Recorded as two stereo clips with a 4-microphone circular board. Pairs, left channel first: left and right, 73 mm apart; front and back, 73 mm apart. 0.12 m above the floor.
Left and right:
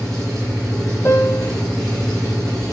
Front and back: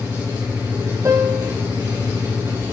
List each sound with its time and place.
0.0 s an engine running: 175° left, 5 m
1.1 s a piano: 145° left, 1.1 m